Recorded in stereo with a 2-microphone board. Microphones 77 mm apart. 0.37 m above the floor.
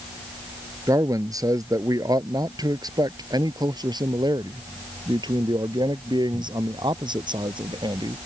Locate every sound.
0.9 s a man speaking: 50° right (ahead or behind); by 8.2 s 80° right